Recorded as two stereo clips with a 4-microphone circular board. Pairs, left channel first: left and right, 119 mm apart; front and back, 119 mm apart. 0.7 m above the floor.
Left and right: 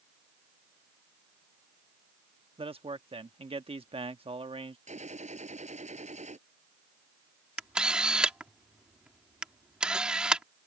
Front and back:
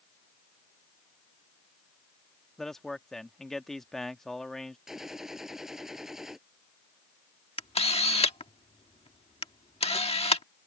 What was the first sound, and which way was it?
A man speaking, 85° right.